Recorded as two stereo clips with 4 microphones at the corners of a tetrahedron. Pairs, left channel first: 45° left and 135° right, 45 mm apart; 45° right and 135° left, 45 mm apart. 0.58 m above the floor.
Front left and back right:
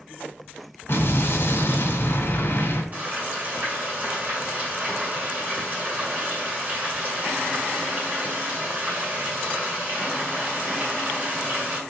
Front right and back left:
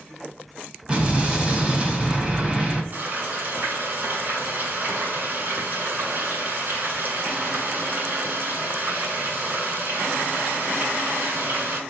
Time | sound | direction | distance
0.9 | an explosion | 70° left | 1.0 m
2.9 | frying | 175° left | 2 m